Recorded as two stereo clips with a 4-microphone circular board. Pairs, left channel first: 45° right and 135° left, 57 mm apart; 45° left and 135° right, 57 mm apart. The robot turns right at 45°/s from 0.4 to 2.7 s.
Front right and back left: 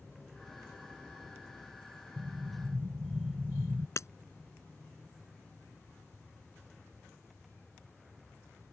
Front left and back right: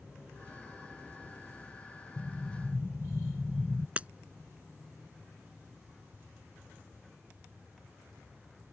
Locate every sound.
2.2 s an explosion: 105° left; by 3.9 s 130° left
4.0 s breaking glass: 70° right